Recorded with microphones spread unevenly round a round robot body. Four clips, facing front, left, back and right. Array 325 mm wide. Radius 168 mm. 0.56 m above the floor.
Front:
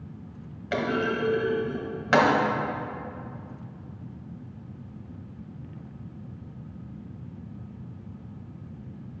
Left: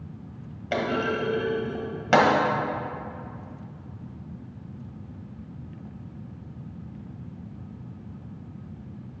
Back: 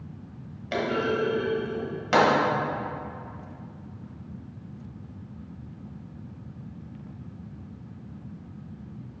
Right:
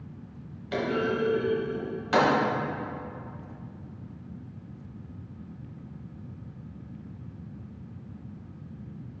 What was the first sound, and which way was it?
A clunk, 85° left.